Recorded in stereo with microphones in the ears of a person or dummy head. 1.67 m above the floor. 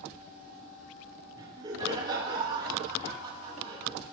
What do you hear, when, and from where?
1.4 s laughter: 25° right (ahead or behind), 8 m; by 4.0 s 35° right (ahead or behind), 9.5 m